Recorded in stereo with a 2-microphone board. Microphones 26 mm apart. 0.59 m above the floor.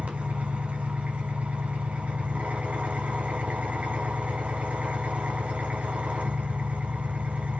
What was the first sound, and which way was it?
An engine running, 70° right (ahead or behind).